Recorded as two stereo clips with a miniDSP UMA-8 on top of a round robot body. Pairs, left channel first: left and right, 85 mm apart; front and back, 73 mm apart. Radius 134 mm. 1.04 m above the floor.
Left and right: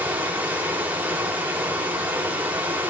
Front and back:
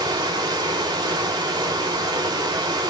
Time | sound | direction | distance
0.0 | running water | 160° right | 2.5 m